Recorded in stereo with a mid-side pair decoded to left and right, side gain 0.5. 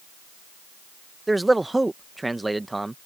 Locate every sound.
1.3 s a man speaking: 10° right